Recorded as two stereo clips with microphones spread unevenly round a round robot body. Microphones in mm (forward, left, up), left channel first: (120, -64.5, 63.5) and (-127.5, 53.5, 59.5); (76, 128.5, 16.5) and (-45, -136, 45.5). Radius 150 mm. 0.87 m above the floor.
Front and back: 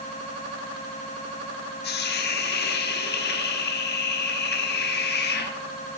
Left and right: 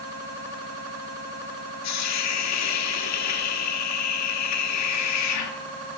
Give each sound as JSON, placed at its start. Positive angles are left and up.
{"t": 1.8, "sound": "a hiss", "azimuth_deg": 30, "distance_m": 1.0}